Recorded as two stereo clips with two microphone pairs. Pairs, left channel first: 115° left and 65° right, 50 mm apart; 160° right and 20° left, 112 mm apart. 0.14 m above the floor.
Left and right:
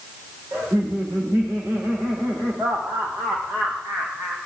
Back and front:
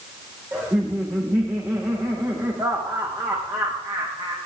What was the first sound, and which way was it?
Laughter, 50° right.